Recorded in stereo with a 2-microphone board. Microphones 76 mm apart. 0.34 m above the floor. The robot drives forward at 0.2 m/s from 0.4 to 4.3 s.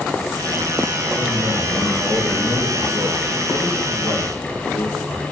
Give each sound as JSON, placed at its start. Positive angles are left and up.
{"t": 1.2, "sound": "a man speaking", "side_deg": 30, "distance_m": 3.0}